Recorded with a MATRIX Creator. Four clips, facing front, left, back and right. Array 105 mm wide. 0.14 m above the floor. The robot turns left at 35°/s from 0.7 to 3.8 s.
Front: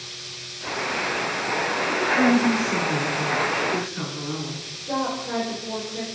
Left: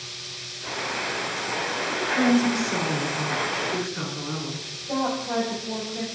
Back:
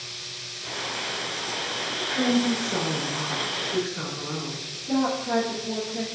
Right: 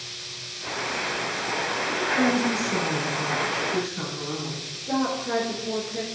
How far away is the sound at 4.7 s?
About 1.6 m.